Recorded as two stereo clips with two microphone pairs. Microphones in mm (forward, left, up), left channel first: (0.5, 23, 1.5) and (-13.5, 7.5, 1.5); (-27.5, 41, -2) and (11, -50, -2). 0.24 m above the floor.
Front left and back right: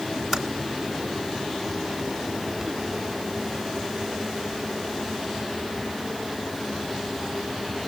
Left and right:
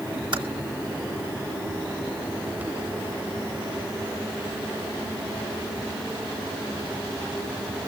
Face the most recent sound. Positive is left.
turn(degrees=-45)